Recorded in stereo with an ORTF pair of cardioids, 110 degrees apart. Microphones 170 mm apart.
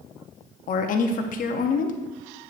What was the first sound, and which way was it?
A woman speaking, 55° left.